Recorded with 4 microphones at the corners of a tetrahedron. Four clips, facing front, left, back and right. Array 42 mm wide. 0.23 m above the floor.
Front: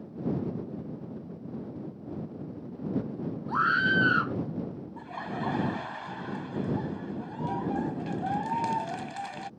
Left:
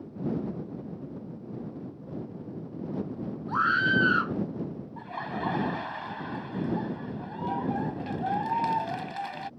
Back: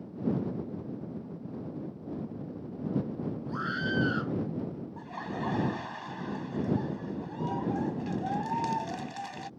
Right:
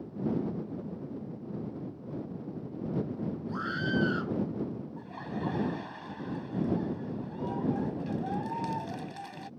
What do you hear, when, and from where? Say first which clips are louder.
3.5 s a scream: left 10 dB, front 9 dB; 50° left
5.0 s laughter: left 8 dB, front 2 dB; 75° left